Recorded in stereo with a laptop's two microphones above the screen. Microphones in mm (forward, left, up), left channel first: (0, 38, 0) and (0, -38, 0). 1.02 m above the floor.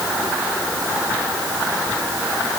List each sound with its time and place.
Only background noise.